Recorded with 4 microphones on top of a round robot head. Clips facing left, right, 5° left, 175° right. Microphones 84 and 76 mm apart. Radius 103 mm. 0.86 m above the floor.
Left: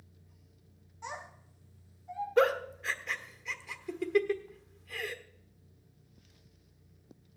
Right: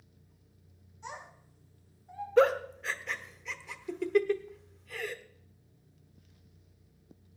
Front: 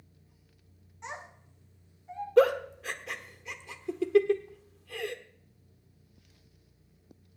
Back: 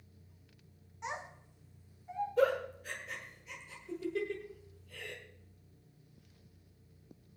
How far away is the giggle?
About 1.1 m.